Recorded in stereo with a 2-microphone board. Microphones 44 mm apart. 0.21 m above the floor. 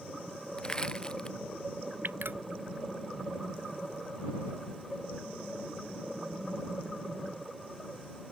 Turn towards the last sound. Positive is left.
turn(degrees=-55)  # may be behind; listen again after turning